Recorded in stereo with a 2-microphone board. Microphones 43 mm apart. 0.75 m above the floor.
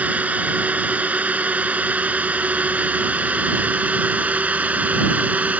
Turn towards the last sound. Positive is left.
turn(degrees=-40)  # may be behind; listen again after turning